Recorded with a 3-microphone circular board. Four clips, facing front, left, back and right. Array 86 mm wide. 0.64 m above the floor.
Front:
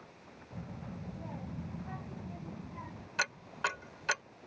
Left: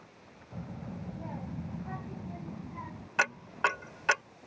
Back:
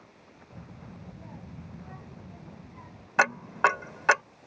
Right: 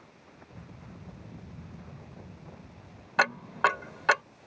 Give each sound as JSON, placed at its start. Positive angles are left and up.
{"t": 0.5, "sound": "a child speaking", "azimuth_deg": 75}
{"t": 3.2, "sound": "ticking", "azimuth_deg": -155}